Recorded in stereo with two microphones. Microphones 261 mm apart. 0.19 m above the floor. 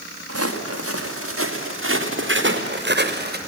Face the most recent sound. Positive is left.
turn(degrees=-40)  # may be behind; listen again after turning